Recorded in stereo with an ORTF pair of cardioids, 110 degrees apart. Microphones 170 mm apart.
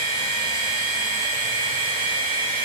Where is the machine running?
55° right, 4.5 m.